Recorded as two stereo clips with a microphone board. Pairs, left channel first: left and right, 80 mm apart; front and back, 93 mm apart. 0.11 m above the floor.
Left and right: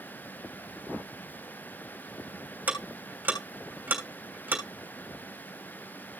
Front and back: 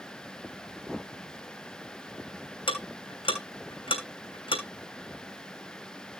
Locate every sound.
2.7 s ticking: 20° right, 3 m